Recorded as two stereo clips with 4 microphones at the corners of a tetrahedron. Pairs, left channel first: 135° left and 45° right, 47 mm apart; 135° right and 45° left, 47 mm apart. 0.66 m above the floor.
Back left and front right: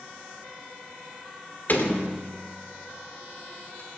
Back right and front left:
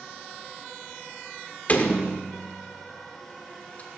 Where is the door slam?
175° left, 1.5 m.